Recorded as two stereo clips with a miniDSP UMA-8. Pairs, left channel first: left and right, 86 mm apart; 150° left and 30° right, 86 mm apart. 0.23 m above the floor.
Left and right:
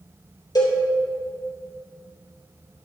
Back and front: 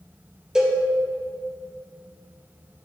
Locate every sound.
0.6 s a cowbell: 50° left, 2.5 m